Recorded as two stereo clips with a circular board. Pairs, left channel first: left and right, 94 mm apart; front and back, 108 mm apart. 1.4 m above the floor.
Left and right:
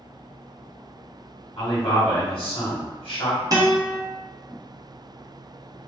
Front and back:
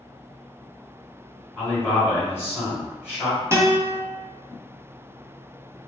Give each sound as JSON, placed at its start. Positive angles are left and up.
{"t": 1.6, "sound": "a man speaking", "azimuth_deg": 70, "distance_m": 1.7}
{"t": 3.5, "sound": "a guitar", "azimuth_deg": -125, "distance_m": 0.8}